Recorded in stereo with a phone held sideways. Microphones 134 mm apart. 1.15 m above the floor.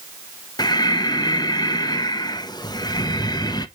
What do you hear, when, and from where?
0.6 s breathing: 30° left (ahead or behind), 0.7 m